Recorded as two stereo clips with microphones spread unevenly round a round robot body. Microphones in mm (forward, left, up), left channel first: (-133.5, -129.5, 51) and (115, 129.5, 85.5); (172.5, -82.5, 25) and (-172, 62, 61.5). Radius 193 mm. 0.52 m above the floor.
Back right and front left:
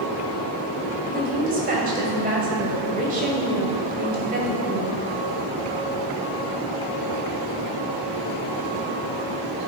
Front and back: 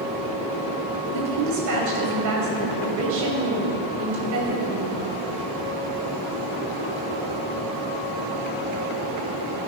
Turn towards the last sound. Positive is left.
turn(degrees=115)